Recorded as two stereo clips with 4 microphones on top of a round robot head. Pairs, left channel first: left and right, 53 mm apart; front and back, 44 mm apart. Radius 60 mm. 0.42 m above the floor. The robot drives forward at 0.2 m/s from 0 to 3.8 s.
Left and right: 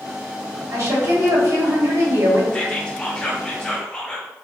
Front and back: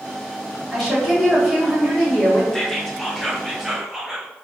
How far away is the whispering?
About 0.8 m.